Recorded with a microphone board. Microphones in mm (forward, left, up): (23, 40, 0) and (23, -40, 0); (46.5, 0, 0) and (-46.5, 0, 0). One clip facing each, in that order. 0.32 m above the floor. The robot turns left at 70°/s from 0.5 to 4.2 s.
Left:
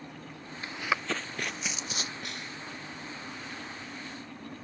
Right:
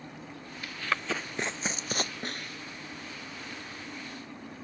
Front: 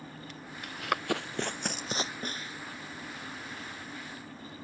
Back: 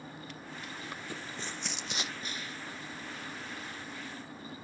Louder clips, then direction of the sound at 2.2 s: Right 2 dB, front 3 dB; 40° right.